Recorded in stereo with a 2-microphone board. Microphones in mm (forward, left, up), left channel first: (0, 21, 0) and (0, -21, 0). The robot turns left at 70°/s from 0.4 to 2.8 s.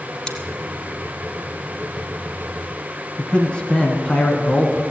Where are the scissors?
15° left (ahead or behind), 1.7 m.